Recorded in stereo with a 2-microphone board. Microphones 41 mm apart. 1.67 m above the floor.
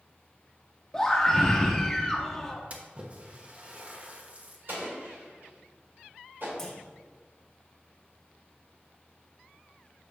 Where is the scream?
15° left (ahead or behind), 0.5 m.